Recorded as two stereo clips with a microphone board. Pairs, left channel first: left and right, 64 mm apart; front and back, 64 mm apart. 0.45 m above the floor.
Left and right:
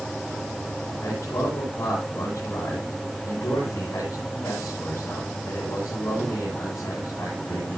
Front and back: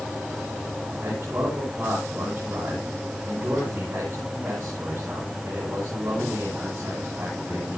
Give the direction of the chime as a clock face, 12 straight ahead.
I don't hear a chime.